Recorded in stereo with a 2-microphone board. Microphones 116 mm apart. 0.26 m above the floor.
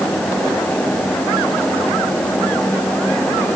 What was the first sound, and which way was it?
Only background noise.